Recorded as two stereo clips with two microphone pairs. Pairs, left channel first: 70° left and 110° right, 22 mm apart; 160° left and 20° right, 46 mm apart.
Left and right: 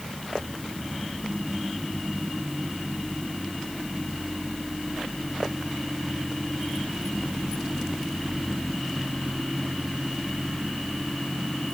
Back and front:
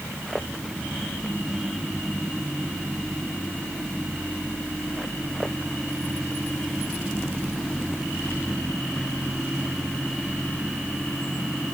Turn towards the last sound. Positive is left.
No sound to turn to.